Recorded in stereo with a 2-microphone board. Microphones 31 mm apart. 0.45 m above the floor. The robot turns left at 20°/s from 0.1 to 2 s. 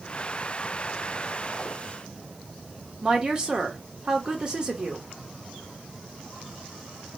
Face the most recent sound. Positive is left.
turn(degrees=-25)  # may be behind; listen again after turning